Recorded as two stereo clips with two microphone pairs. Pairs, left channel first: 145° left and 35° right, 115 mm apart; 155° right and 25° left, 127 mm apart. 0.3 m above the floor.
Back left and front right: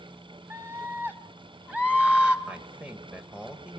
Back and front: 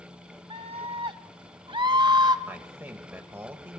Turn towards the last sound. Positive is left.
turn(degrees=10)